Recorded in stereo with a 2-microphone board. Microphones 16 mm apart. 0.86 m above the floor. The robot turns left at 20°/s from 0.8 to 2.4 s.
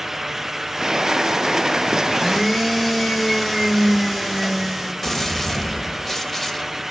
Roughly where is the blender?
Centre.